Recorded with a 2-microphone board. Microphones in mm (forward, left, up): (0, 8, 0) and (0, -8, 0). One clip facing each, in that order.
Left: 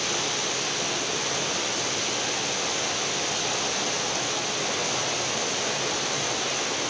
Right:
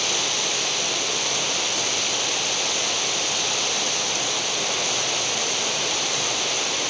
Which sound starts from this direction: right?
Running water, at 0.0 s.